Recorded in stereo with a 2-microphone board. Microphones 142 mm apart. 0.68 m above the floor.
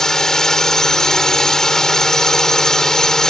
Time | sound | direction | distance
0.0 | a drone | 5° left (ahead or behind) | ?